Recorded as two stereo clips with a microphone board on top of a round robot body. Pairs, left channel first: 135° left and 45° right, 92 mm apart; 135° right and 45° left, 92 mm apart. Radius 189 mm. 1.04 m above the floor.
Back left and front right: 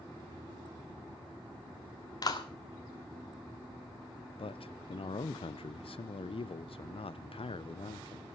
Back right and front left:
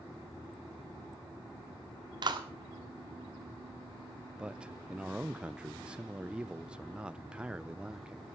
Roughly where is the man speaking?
Behind left.